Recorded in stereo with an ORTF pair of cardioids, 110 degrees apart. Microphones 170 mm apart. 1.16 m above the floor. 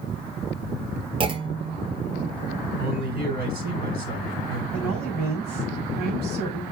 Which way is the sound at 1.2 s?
30° right.